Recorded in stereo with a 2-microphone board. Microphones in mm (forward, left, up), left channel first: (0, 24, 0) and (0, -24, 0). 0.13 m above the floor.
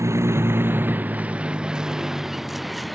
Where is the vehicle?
80° right; by 2.9 s centre (ahead or behind).